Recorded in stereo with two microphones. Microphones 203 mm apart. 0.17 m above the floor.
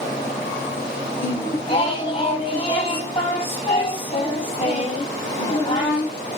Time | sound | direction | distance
1.2 | singing | 30° left (ahead or behind) | 2.5 m